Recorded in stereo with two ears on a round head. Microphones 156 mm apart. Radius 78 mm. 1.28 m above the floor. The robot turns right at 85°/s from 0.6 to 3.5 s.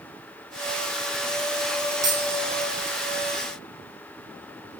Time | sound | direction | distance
2.0 | a dropped coin | 20° right (ahead or behind) | 1.7 m